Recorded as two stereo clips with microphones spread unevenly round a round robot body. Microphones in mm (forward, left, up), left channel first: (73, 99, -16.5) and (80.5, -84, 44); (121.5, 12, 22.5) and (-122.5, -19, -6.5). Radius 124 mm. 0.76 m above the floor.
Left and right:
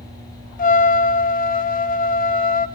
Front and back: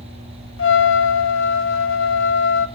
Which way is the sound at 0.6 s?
40° left.